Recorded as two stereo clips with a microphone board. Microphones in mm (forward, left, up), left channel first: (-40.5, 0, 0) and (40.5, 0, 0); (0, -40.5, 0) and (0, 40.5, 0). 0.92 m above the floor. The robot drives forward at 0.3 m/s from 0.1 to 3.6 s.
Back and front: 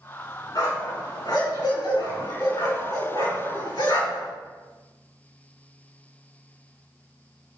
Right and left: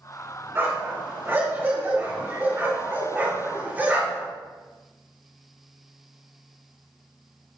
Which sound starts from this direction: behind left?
A dog barking, at 0.6 s.